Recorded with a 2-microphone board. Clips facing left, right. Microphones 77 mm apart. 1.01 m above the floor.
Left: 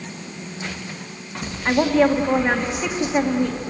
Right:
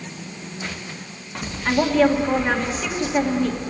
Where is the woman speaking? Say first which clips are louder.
Left 1 dB; 15° left (ahead or behind), 1.9 m.